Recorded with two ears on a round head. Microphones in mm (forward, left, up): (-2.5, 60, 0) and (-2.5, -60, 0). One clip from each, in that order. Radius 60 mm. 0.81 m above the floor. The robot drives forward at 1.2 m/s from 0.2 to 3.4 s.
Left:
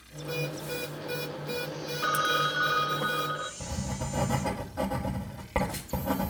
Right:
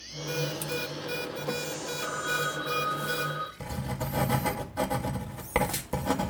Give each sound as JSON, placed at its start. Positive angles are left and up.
{"t": 2.0, "sound": "a phone ringing", "side_deg": 80, "distance_m": 0.8}
{"t": 3.6, "sound": "writing", "side_deg": -55, "distance_m": 2.0}